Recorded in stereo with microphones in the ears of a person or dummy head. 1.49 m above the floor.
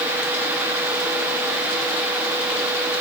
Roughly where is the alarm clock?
No alarm clock in this recording.